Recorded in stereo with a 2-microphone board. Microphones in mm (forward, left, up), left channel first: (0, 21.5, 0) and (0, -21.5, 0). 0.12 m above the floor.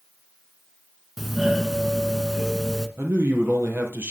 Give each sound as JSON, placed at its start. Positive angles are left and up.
{"t": 1.2, "sound": "a doorbell", "side_deg": -5, "distance_m": 1.6}
{"t": 3.0, "sound": "a man speaking", "side_deg": -65, "distance_m": 3.5}